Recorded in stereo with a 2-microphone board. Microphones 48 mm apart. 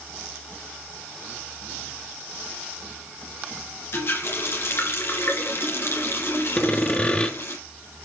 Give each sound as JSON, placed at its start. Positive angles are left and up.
{"t": 3.9, "sound": "a running tap", "side_deg": 55, "distance_m": 2.5}
{"t": 6.6, "sound": "sawing", "side_deg": 20, "distance_m": 1.5}